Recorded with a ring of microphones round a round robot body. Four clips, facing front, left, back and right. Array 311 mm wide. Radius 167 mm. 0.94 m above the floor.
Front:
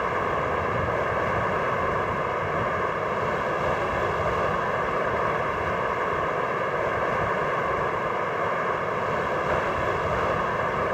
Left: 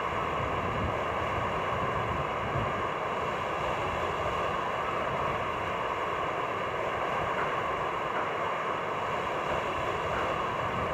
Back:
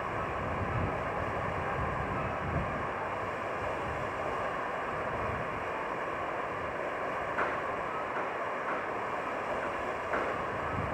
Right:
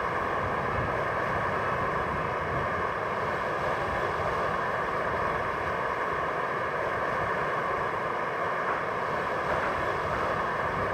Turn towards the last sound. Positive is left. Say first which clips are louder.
# right 2 dB, front 9 dB
turn(degrees=-10)